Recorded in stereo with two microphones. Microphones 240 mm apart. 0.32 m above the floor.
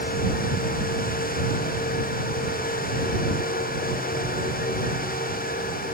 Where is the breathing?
No breathing in this recording.